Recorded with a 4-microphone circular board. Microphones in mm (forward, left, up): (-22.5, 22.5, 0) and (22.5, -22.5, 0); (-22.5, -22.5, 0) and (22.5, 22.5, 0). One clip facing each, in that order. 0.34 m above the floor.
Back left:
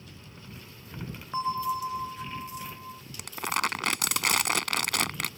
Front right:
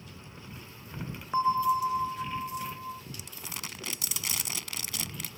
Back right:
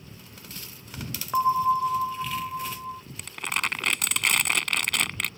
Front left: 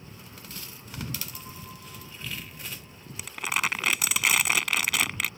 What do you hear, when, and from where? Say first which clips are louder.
1.3 s a bell: front right 4 dB, back right 23 dB; 120° right
3.2 s crumpling: back left 13 dB, front left 1 dB; 130° left